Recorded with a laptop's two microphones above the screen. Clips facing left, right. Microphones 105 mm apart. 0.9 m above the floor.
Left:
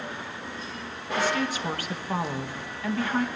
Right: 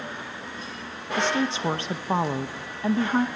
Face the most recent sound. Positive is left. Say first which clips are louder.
# right 2 dB
turn(degrees=-25)  # may be behind; listen again after turning